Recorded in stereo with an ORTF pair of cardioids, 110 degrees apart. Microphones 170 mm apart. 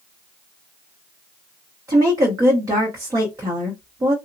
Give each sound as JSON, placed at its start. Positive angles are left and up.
{"t": 1.9, "sound": "a woman speaking", "azimuth_deg": -20, "distance_m": 0.8}